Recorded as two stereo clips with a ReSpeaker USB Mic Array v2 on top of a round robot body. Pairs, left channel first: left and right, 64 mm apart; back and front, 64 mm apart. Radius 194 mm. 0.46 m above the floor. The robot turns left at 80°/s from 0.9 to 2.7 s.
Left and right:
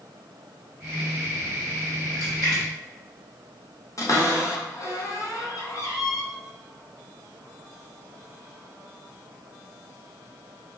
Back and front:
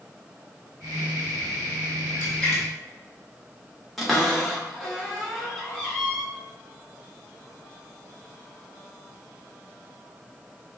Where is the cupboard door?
90° left, 1.6 m.